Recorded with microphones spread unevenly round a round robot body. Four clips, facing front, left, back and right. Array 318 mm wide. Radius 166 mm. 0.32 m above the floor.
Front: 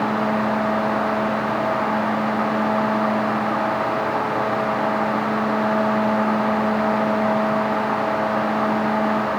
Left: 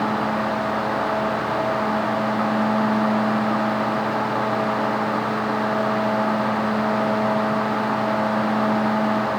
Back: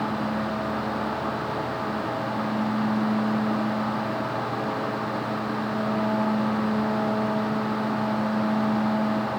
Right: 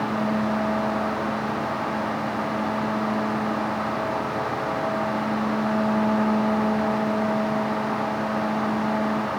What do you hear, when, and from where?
Only background noise.